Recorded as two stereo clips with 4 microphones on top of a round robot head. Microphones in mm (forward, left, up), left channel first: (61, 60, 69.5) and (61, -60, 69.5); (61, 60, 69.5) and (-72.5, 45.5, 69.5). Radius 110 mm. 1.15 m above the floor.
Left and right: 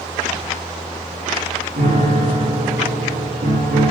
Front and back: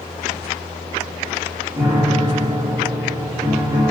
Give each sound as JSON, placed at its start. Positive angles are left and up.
{"t": 1.8, "sound": "a piano", "azimuth_deg": -105, "distance_m": 3.0}